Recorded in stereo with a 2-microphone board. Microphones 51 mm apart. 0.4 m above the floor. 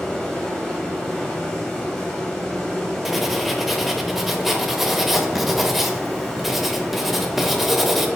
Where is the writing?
5° right (ahead or behind), 0.7 m.